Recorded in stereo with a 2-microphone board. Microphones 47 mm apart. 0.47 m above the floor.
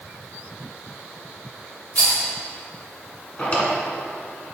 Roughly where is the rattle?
Left.